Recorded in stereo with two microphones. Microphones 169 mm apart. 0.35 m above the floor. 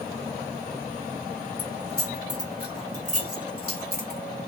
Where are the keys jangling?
10° right (ahead or behind), 1.4 m; by 4.2 s 65° right (ahead or behind), 1.3 m.